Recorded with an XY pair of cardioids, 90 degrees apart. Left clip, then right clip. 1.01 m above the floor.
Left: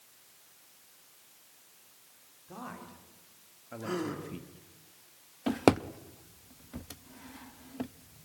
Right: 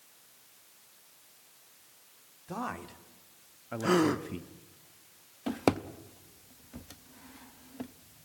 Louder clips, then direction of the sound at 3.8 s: Right 9 dB; 70° right.